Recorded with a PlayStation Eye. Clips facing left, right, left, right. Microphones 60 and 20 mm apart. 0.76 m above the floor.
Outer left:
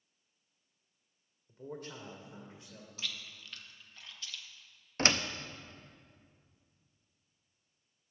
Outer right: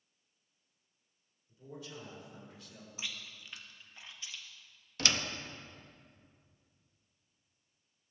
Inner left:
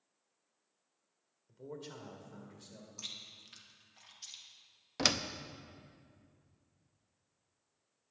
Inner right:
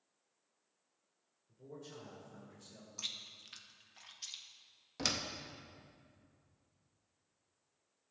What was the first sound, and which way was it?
A man speaking, 60° left (ahead or behind).